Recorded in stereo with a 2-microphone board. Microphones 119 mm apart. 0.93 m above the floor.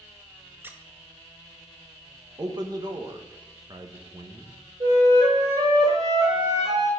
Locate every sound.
0.6 s a squeak: 15° right (ahead or behind), 0.7 m
2.4 s a man speaking: 35° right (ahead or behind), 1.0 m
4.8 s a flute: 35° right (ahead or behind), 2.5 m